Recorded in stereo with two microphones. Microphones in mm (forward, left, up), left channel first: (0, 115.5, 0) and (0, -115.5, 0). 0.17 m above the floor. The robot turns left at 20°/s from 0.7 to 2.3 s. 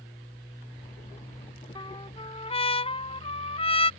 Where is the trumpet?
20° left (ahead or behind); by 3.9 s 25° left (ahead or behind).